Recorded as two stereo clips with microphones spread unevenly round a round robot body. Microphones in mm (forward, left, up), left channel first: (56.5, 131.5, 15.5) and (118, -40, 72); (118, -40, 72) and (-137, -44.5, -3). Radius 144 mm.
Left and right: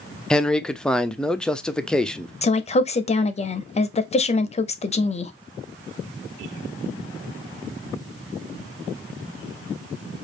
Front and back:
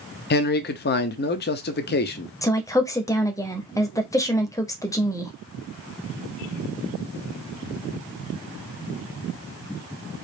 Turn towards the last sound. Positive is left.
turn(degrees=90)